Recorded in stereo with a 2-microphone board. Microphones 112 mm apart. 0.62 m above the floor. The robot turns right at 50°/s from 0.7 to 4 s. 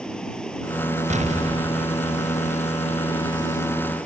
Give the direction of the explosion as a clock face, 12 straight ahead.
3 o'clock.